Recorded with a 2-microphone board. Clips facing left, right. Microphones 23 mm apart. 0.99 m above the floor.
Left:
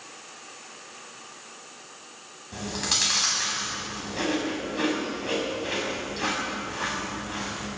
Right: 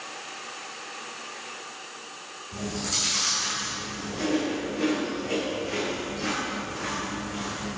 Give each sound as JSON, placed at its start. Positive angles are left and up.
{"t": 2.5, "sound": "chewing", "side_deg": 65, "distance_m": 4.0}